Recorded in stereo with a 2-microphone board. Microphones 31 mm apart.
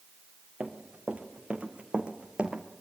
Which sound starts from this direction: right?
Running footsteps, at 0.6 s.